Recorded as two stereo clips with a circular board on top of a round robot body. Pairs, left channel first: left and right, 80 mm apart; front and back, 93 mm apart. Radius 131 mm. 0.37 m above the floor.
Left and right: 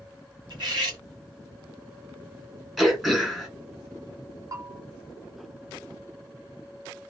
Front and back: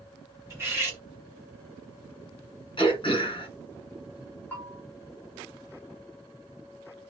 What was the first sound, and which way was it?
Cutlery clinking, 115° right.